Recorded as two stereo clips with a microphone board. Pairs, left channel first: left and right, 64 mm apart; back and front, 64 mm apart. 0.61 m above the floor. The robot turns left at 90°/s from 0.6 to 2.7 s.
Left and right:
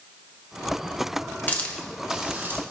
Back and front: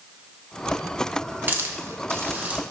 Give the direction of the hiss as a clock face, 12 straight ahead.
11 o'clock.